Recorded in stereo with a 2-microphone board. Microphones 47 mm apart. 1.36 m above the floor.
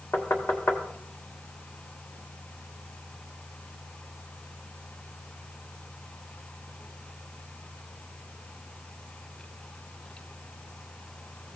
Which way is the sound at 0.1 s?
50° left (ahead or behind).